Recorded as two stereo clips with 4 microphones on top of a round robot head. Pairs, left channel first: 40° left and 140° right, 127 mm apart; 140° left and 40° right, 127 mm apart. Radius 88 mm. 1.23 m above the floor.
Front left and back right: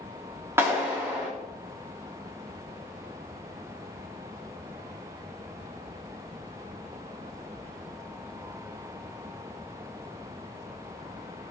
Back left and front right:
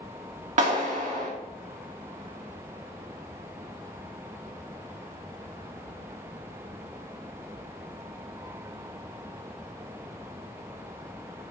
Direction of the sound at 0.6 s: 70° right.